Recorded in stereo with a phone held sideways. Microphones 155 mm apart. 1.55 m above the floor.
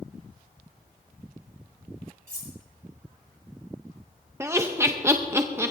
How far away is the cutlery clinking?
About 3 m.